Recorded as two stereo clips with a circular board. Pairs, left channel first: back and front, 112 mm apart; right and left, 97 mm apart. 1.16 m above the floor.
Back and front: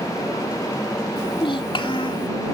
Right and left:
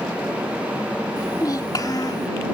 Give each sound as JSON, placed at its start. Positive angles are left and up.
{"t": 1.2, "sound": "a child speaking", "azimuth_deg": -140}